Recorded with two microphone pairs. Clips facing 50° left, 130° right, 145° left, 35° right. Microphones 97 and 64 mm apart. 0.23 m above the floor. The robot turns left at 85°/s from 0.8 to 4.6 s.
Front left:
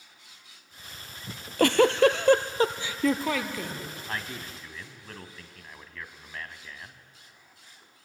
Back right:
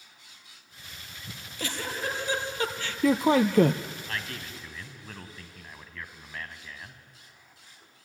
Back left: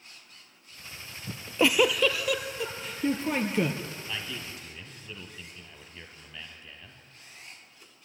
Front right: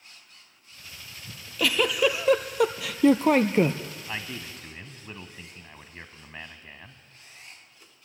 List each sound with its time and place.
1.3 s a giggle: 105° left, 1.0 m; by 3.8 s 110° right, 1.0 m
4.1 s a man speaking: straight ahead, 2 m; by 7.0 s 45° right, 2 m